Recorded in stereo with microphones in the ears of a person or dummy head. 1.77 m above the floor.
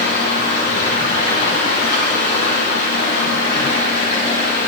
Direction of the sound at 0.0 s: 65° left (ahead or behind).